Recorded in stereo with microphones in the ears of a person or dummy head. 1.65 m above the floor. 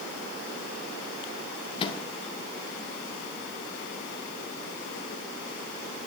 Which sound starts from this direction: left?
A microwave, at 1.8 s.